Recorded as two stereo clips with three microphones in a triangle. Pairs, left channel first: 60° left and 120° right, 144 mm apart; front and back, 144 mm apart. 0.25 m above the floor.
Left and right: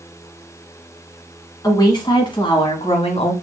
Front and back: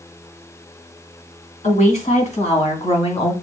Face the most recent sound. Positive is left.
turn(degrees=40)